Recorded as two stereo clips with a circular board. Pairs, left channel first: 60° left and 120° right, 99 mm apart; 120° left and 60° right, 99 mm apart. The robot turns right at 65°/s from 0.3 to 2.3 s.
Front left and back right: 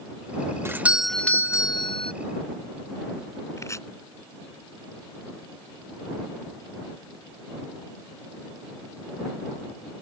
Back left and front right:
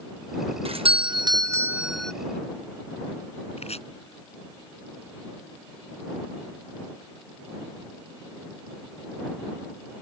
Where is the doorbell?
55° right; by 2.1 s 40° left.